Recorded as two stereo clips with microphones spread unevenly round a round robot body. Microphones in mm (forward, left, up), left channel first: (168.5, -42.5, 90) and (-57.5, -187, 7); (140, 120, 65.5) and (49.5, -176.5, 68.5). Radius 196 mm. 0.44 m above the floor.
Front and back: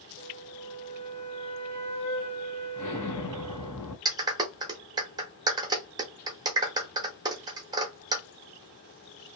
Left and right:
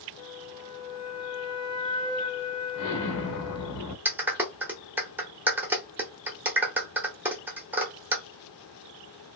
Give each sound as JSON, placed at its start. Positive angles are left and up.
{"t": 0.2, "sound": "a flute", "azimuth_deg": -50, "distance_m": 1.1}
{"t": 2.8, "sound": "an explosion", "azimuth_deg": 75, "distance_m": 0.7}
{"t": 4.0, "sound": "a clap", "azimuth_deg": 170, "distance_m": 0.6}